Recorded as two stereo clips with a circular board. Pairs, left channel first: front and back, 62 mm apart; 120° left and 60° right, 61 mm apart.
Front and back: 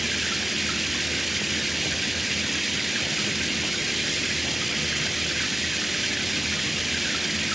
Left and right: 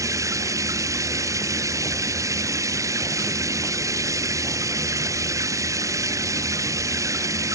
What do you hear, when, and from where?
0.0 s running water: 90° right